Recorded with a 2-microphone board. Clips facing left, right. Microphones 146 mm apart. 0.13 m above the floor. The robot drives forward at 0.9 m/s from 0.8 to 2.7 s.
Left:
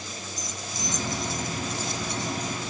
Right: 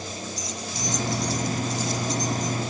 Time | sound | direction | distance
0.4 | keys jangling | 50° left (ahead or behind) | ?